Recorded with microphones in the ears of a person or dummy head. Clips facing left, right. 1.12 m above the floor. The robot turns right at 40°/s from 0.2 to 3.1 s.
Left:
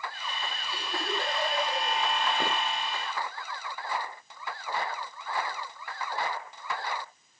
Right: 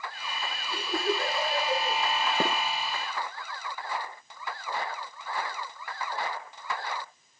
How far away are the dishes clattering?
About 3.5 m.